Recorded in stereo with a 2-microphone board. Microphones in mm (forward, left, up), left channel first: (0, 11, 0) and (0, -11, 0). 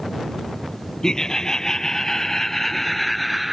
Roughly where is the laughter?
Left.